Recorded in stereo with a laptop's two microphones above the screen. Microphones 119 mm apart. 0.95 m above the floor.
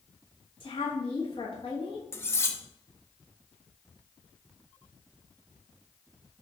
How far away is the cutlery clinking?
About 0.6 m.